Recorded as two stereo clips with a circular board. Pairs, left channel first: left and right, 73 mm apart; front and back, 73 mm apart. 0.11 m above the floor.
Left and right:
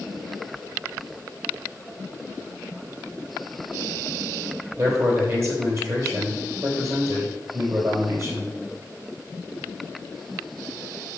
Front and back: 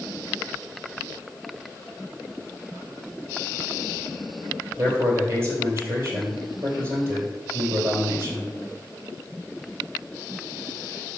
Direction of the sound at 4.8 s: 130° right.